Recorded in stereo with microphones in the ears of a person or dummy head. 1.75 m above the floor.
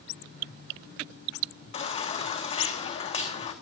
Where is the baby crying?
35° left (ahead or behind), 2.5 m.